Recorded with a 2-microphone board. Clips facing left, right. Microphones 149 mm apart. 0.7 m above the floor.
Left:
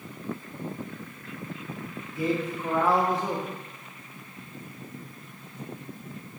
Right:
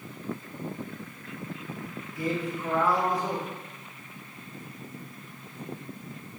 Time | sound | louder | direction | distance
2.1 | a man speaking | left 3 dB | 25° left (ahead or behind) | 1.2 m